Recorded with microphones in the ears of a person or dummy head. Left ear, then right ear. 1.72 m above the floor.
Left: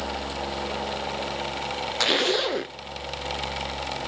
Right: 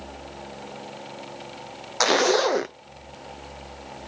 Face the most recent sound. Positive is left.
turn(degrees=-35)  # may be behind; listen again after turning